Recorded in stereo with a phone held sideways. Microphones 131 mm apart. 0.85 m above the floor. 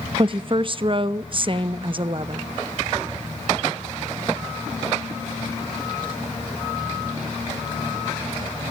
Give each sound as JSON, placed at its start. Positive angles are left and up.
{"t": 0.2, "sound": "a woman speaking", "side_deg": -40, "distance_m": 0.6}